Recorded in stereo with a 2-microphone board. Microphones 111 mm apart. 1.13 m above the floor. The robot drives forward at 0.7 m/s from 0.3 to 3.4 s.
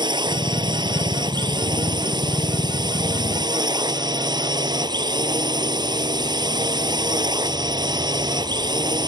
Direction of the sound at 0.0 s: 40° right (ahead or behind).